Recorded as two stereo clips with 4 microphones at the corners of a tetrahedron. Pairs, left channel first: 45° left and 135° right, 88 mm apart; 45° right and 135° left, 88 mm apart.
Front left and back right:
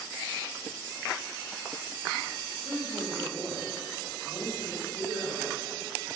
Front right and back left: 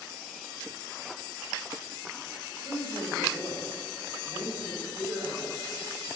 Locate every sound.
2.6 s a woman speaking: 95° left, 2.5 m; by 5.7 s 110° left, 5 m